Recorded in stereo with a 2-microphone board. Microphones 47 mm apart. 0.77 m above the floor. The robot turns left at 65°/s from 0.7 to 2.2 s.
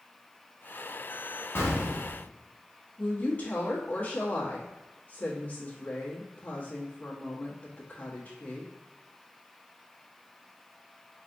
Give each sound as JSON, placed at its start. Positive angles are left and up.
{"t": 1.6, "sound": "an explosion", "azimuth_deg": 115, "distance_m": 1.2}
{"t": 3.0, "sound": "a woman speaking", "side_deg": 35, "distance_m": 1.4}